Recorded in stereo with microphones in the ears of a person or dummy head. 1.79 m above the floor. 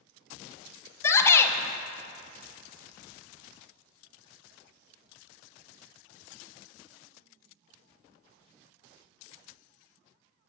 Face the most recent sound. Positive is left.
turn(degrees=15)  # may be behind; listen again after turning